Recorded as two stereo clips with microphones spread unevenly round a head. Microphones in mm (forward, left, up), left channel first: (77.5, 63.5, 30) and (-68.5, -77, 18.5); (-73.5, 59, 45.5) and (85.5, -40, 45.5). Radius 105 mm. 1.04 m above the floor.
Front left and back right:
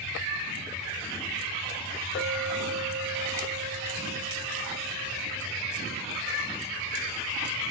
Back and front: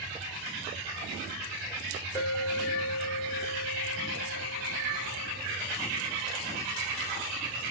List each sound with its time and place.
2.1 s a clink: 75° left, 2 m